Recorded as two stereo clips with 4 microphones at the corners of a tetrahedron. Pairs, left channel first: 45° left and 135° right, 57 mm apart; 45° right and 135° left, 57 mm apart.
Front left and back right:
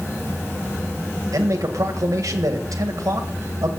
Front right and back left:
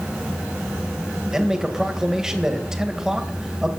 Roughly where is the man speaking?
Behind right.